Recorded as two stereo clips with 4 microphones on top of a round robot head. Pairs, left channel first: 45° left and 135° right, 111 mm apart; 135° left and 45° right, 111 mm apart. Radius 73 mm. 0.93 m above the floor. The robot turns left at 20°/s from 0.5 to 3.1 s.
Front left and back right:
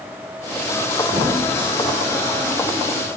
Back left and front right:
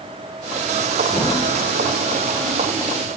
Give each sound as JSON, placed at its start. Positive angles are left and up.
{"t": 1.1, "sound": "a thud", "azimuth_deg": 180, "distance_m": 4.5}